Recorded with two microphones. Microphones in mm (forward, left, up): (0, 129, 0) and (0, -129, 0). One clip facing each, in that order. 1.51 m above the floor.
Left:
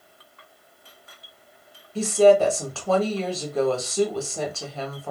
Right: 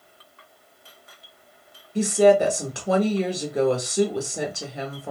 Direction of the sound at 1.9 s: 15° right (ahead or behind).